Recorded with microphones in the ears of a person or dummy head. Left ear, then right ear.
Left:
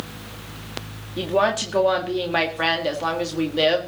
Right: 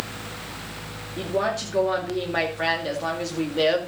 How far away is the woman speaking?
About 2.5 m.